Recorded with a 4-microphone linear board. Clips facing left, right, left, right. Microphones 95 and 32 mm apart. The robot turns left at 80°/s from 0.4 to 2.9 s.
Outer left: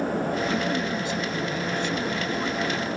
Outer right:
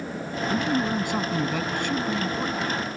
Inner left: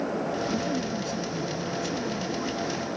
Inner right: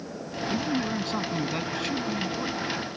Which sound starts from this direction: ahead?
A man speaking, at 0.5 s.